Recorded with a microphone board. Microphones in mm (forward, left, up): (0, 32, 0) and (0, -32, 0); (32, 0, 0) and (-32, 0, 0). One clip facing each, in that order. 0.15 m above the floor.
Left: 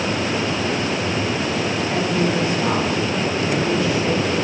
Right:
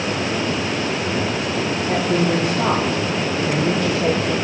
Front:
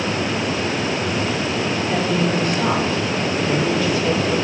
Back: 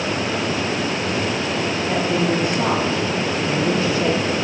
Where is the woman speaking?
110° right, 4 m; by 4.3 s 125° right, 4.5 m.